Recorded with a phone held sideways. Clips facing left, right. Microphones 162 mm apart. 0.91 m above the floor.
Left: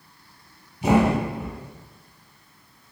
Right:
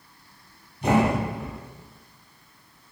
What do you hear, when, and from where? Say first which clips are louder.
0.8 s a thud: left 2 dB; 10° left (ahead or behind), 1.6 m